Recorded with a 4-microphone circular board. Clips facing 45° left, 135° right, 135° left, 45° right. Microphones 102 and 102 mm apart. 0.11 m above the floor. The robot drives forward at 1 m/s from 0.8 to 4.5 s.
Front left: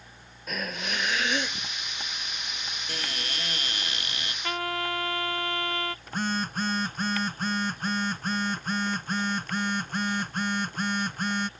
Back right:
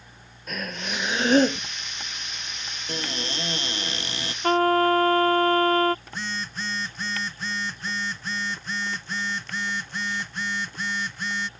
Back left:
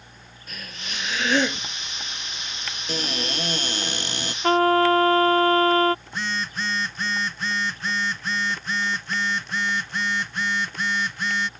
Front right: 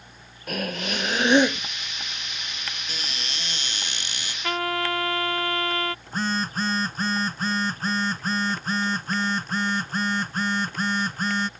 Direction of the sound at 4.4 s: 175° right.